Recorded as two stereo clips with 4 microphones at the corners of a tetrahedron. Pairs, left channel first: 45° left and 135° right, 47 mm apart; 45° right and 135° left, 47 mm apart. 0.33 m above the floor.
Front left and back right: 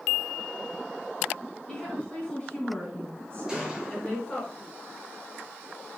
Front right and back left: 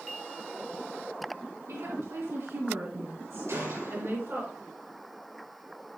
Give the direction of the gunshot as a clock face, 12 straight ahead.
7 o'clock.